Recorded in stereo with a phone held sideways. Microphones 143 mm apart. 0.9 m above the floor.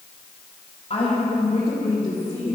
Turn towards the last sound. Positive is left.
turn(degrees=40)  # may be behind; listen again after turning